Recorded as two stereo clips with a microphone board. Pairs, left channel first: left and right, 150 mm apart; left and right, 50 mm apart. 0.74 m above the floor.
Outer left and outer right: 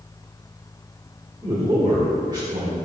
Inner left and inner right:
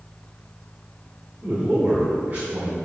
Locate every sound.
1.4 s a man speaking: 30° right (ahead or behind), 2 m